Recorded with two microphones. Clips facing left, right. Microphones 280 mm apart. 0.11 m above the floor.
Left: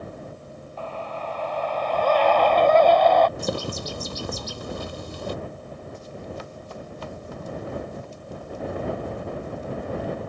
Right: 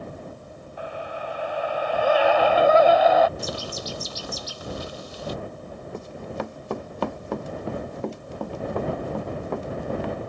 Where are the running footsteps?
65° right (ahead or behind); by 10.2 s 75° right (ahead or behind).